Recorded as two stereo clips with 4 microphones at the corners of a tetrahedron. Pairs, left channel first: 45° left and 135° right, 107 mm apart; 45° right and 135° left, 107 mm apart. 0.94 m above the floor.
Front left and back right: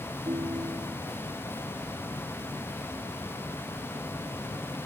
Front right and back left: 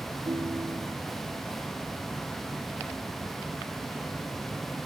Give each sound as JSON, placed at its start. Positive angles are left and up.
{"t": 0.3, "sound": "a ringtone", "azimuth_deg": -175}